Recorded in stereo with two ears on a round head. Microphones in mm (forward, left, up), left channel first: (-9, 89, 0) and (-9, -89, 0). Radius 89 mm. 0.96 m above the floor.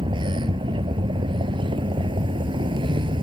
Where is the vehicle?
25° right (ahead or behind).